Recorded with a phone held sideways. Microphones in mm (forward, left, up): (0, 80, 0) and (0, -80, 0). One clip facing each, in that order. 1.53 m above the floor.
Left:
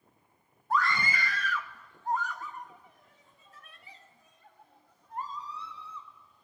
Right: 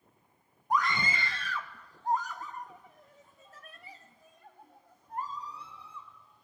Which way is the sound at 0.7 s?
15° right (ahead or behind).